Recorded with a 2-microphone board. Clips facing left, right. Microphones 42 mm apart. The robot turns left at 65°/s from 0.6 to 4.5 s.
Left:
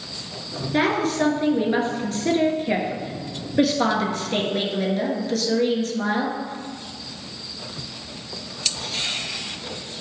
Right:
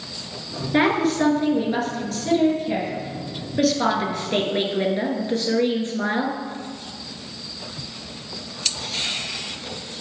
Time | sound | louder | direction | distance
0.7 | a woman speaking | right 2 dB | 155° right | 1.4 m